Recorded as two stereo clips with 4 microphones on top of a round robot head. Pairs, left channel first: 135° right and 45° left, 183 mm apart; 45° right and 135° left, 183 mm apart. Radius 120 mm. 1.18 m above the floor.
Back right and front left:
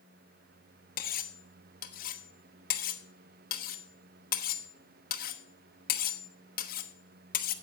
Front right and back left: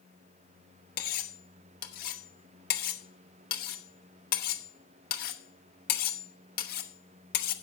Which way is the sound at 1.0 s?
90° right.